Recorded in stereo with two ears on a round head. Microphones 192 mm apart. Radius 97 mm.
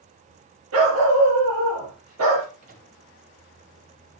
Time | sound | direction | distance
0.7 | a dog barking | 70° right (ahead or behind) | 5 m
2.6 | a microwave | 40° right (ahead or behind) | 3 m